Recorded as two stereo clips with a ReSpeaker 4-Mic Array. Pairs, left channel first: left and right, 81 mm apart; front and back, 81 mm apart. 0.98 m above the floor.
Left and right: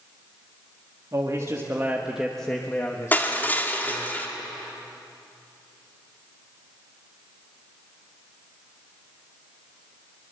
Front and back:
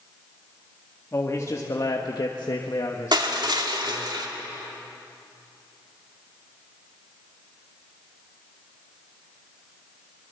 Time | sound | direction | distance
1.1 | a man speaking | 50° right | 2 m
3.1 | crushing | 155° left | 2.0 m